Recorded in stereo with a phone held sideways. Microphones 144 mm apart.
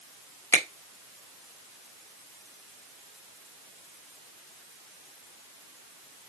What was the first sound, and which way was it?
A finger snap, 15° left (ahead or behind).